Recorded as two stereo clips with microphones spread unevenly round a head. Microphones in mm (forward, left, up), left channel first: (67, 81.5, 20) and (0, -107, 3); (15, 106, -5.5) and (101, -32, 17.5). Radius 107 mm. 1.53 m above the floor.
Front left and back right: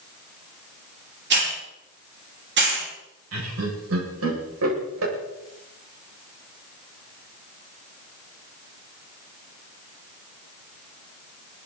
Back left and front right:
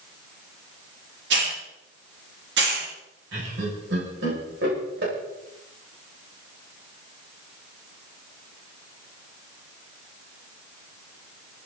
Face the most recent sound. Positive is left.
turn(degrees=-100)